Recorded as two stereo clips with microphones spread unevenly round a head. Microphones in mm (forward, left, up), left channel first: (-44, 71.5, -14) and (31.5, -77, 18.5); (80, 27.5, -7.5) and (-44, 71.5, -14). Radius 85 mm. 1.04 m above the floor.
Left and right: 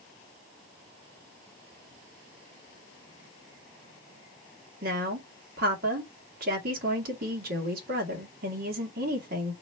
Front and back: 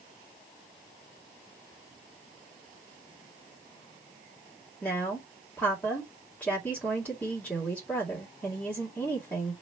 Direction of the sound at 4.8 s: 100° right.